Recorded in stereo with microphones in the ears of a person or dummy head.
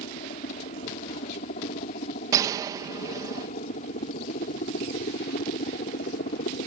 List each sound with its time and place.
0.0 s a helicopter: 35° left (ahead or behind); by 6.7 s 40° left (ahead or behind)
2.3 s a gunshot: 20° right (ahead or behind)